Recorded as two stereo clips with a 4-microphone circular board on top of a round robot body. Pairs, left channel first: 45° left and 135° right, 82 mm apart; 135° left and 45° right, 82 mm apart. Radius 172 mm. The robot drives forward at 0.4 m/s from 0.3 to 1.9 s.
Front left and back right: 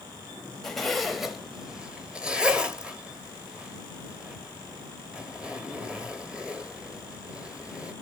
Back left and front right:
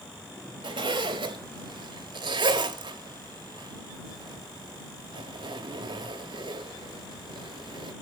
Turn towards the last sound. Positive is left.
turn(degrees=-60)